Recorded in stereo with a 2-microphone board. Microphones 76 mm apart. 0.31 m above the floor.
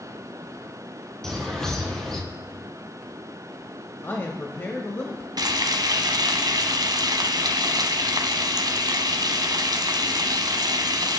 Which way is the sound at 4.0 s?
35° left (ahead or behind).